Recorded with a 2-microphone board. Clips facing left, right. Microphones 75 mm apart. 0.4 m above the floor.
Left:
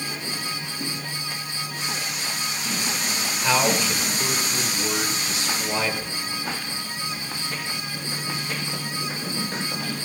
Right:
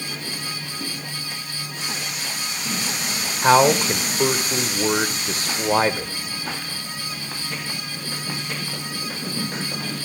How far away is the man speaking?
About 1.1 m.